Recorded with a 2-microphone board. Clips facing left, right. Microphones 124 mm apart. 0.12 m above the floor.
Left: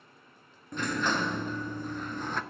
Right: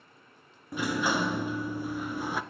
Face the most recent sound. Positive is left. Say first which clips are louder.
# right 2 dB
turn(degrees=-10)  # may be behind; listen again after turning